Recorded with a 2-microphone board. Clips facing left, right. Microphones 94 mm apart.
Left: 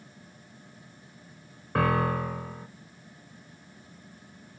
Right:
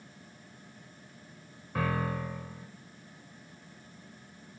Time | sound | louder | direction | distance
1.8 | a piano | left 7 dB | 65° left (ahead or behind) | 0.5 m